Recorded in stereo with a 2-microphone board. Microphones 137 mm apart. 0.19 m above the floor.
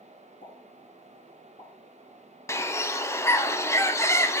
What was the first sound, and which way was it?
A pop, 75° left (ahead or behind).